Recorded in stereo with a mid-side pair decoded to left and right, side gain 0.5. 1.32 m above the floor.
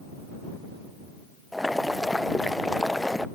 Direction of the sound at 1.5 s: 10° left.